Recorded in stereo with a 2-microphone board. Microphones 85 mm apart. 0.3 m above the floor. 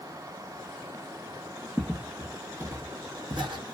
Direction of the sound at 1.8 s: 5° right (ahead or behind).